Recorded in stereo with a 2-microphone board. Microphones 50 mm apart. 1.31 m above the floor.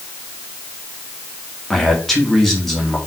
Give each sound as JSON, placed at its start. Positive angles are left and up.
{"t": 1.7, "sound": "a man speaking", "side_deg": 5, "distance_m": 2.5}